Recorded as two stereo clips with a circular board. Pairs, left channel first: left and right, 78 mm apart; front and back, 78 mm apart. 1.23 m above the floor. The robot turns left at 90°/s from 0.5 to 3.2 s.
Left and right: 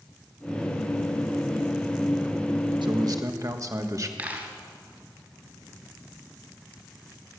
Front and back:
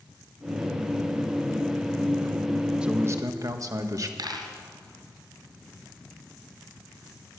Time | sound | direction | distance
2.8 | a man speaking | 100° right | 1.4 m
4.2 | a dropped coin | 155° right | 2.5 m